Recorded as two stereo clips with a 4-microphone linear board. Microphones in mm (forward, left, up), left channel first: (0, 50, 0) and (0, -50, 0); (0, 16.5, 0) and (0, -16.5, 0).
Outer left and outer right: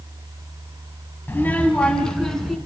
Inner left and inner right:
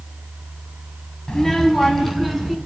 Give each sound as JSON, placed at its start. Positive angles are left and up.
{"t": 1.3, "sound": "a child speaking", "side_deg": 20, "distance_m": 2.0}